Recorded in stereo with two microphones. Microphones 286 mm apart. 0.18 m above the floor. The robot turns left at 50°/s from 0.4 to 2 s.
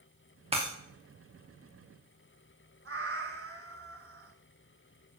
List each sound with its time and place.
0.5 s breaking glass: 20° right (ahead or behind), 5 m; by 0.7 s 15° right (ahead or behind), 5 m
2.9 s a cat meowing: 50° right (ahead or behind), 1.2 m